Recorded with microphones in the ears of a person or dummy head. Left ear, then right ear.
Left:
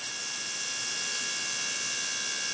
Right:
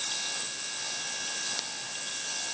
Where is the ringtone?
I don't hear a ringtone.